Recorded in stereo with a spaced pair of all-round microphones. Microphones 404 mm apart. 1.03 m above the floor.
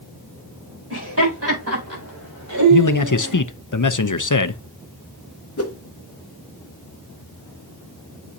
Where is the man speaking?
50° left (ahead or behind), 0.7 m.